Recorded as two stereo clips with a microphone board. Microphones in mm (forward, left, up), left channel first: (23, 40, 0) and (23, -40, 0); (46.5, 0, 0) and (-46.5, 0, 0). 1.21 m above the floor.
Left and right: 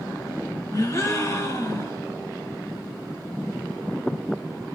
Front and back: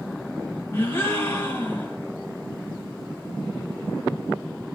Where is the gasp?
60° left, 1.7 m.